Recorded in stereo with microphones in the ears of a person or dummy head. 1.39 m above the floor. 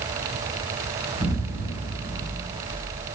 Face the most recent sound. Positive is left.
turn(degrees=-30)  # may be behind; listen again after turning